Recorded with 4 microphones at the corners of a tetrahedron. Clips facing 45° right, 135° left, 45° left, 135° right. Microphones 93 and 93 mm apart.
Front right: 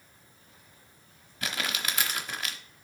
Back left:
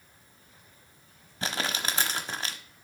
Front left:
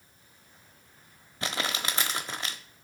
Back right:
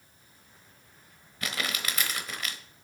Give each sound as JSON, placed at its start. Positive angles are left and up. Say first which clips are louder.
{"t": 1.4, "sound": "crumpling", "louder": "back left 2 dB, front left 2 dB", "azimuth_deg": 95, "distance_m": 0.9}